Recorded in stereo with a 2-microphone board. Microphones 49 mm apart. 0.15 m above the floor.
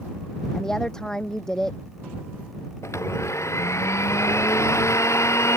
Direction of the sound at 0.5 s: 10° left (ahead or behind).